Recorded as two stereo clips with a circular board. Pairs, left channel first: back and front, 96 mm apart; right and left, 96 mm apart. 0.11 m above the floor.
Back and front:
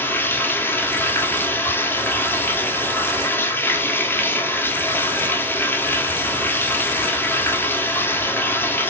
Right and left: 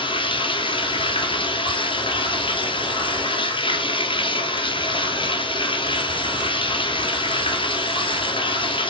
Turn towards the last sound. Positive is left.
turn(degrees=-110)